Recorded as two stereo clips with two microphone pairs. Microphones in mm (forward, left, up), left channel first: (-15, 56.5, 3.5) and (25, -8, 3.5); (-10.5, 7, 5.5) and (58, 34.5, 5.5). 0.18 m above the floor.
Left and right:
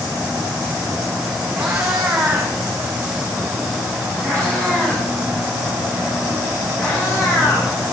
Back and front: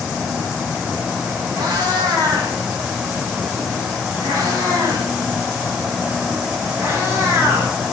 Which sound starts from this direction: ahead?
A cat meowing, at 1.5 s.